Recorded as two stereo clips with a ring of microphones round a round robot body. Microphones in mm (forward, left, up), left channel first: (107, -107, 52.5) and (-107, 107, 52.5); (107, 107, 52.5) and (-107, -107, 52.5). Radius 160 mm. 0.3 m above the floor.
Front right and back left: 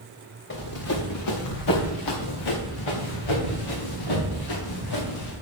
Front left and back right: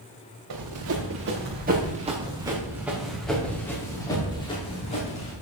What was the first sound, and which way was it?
Running footsteps, 95° right.